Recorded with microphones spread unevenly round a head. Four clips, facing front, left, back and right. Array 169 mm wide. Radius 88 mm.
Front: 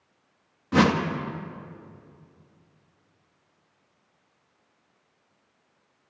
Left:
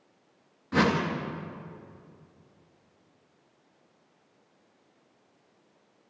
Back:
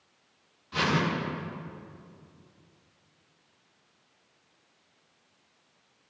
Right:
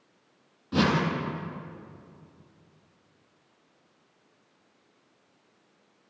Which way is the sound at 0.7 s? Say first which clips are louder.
Even, front 7 dB; straight ahead.